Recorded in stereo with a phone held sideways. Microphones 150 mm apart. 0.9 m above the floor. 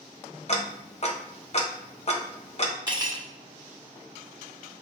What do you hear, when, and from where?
0.5 s ticking: 45° left (ahead or behind), 0.7 m
2.9 s cutlery clinking: 30° right (ahead or behind), 1.3 m